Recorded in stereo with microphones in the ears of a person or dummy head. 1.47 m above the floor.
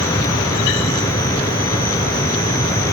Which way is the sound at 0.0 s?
25° left (ahead or behind).